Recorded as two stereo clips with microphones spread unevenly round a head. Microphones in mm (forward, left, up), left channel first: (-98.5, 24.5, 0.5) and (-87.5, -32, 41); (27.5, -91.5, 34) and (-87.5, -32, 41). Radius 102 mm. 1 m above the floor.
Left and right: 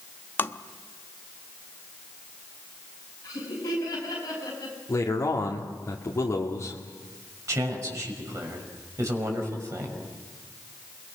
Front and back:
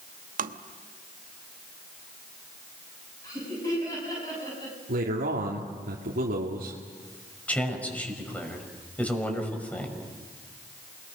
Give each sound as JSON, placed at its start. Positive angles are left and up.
{"t": 0.4, "sound": "tapping", "azimuth_deg": 160, "distance_m": 1.1}
{"t": 3.2, "sound": "laughter", "azimuth_deg": 45, "distance_m": 7.5}
{"t": 4.9, "sound": "a man speaking", "azimuth_deg": 135, "distance_m": 2.5}
{"t": 7.5, "sound": "a man speaking", "azimuth_deg": -105, "distance_m": 6.0}